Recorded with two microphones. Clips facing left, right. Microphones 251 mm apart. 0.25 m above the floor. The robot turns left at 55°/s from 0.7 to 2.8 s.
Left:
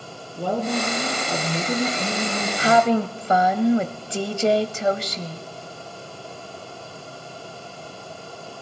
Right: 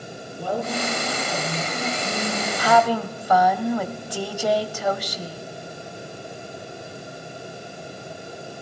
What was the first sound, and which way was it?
A woman speaking, 130° left.